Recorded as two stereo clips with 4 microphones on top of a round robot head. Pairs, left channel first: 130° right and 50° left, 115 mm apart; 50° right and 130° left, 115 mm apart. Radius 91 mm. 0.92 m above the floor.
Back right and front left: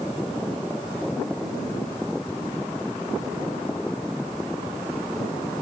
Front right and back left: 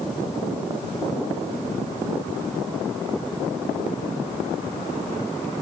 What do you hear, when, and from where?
Only background noise.